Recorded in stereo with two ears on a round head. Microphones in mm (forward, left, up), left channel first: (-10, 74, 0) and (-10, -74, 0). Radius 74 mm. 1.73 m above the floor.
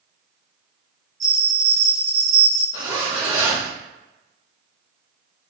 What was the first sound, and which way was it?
A bell, 20° right (ahead or behind).